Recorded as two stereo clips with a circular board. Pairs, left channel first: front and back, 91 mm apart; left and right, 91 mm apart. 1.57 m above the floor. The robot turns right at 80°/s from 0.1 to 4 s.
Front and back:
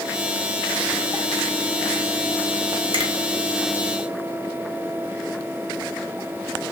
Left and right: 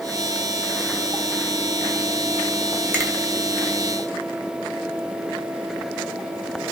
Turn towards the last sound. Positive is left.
turn(degrees=-75)